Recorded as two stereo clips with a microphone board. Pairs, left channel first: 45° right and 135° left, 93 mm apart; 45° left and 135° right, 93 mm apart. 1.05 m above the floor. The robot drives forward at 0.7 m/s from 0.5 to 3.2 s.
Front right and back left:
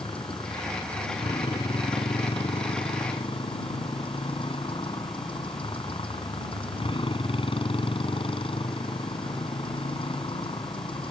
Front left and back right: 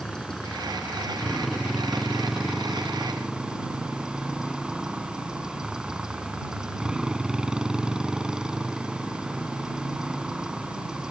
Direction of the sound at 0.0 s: 40° right.